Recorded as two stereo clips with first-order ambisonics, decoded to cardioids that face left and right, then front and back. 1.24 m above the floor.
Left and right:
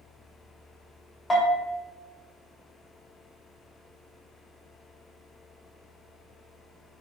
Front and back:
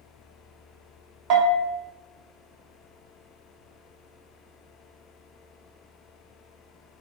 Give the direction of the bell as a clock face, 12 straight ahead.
6 o'clock.